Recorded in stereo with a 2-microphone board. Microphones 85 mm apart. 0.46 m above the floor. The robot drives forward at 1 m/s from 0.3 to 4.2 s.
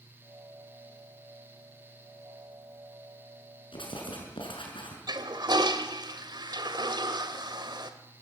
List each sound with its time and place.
3.7 s writing: 80° left, 6.5 m
5.1 s a toilet flushing: 60° right (ahead or behind), 1.8 m